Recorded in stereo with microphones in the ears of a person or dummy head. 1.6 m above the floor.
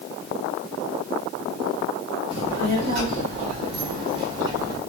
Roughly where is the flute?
No flute in this recording.